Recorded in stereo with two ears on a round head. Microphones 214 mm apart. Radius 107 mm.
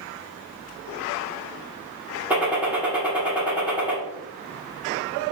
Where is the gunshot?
5° right (ahead or behind), 1.3 m.